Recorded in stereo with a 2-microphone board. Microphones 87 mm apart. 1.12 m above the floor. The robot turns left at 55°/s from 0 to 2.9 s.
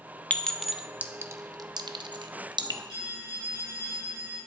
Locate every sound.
0.3 s a clink: 15° left (ahead or behind), 0.6 m; by 2.8 s 50° right (ahead or behind), 0.6 m
2.9 s a phone ringing: 70° right (ahead or behind), 5 m